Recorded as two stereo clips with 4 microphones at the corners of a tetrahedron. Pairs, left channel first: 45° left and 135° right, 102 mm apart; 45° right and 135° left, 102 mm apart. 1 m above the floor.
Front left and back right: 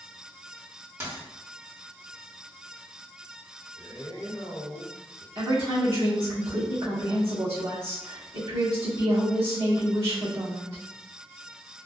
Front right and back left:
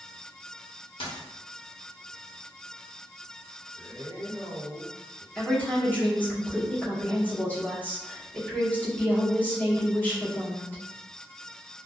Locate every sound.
1.0 s a dropped coin: 75° right, 1.0 m
3.8 s a man speaking: 25° left, 1.4 m
5.3 s a woman speaking: 120° right, 1.8 m